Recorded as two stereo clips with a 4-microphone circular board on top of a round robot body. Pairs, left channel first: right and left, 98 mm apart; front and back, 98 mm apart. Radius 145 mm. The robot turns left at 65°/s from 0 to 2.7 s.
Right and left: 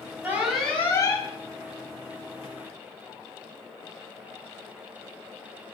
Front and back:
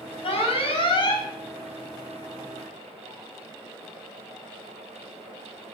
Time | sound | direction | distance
0.2 | an alarm | 20° left | 5 m